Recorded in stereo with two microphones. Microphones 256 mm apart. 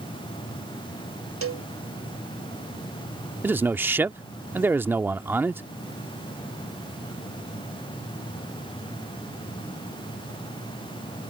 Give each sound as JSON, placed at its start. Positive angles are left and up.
{"t": 1.4, "sound": "a cowbell", "side_deg": -60}
{"t": 3.4, "sound": "a man speaking", "side_deg": -10}